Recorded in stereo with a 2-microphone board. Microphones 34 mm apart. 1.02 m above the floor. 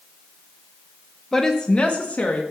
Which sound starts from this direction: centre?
A woman speaking, at 1.3 s.